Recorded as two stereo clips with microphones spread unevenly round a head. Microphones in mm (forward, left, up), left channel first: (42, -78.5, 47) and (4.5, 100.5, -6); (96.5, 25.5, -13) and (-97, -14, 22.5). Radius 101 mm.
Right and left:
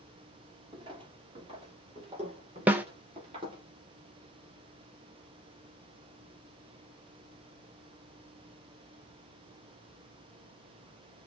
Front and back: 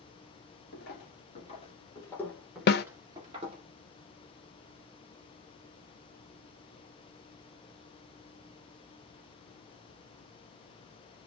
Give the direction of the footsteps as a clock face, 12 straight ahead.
11 o'clock.